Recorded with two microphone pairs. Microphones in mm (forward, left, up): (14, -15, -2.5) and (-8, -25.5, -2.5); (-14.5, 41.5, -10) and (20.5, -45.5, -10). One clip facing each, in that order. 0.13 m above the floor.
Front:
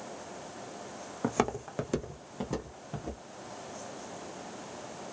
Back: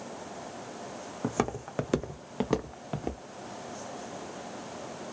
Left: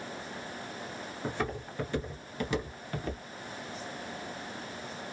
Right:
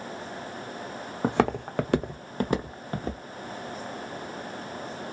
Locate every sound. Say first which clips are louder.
1.2 s footsteps: front 1 dB, right 11 dB; 50° right, 0.6 m; by 3.2 s 130° right, 1.1 m